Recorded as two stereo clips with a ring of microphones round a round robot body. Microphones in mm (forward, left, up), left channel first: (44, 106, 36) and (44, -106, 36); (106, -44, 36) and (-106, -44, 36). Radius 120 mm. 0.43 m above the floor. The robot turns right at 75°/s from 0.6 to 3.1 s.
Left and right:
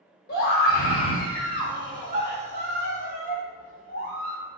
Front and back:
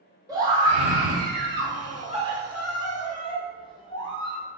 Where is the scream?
110° left, 1.2 m; by 4.4 s 60° right, 1.2 m.